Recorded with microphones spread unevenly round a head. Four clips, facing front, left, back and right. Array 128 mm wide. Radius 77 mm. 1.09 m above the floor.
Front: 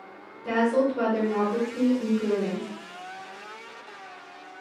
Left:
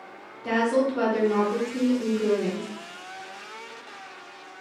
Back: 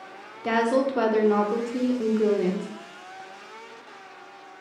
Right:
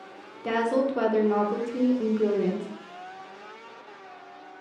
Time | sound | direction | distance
0.4 | a woman speaking | 145° right | 0.7 m